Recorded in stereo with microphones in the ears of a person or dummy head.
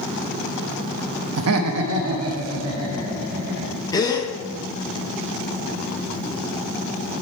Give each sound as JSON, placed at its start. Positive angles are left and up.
{"t": 1.4, "sound": "laughter", "side_deg": -90, "distance_m": 0.8}
{"t": 3.9, "sound": "a gasp", "side_deg": 20, "distance_m": 0.8}